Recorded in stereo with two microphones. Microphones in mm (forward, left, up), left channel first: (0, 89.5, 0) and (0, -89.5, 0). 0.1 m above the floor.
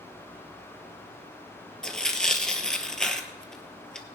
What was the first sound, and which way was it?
Tearing paper, 5° left (ahead or behind).